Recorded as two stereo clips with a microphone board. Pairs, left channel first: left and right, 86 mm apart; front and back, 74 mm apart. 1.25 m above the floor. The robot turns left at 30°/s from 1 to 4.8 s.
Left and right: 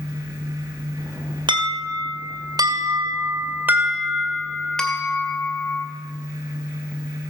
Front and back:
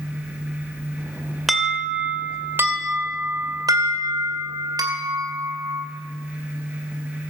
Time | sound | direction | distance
1.5 | an alarm | 90° right | 2.5 m